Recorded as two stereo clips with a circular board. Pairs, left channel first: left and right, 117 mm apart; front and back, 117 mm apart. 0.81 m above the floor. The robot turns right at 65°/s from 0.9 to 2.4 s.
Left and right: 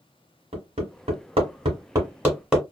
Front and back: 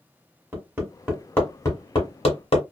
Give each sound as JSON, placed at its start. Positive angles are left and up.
{"t": 0.5, "sound": "hammering", "azimuth_deg": -105, "distance_m": 1.4}